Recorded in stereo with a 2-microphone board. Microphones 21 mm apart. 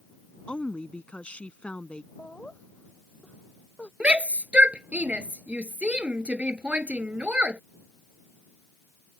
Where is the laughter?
65° left (ahead or behind).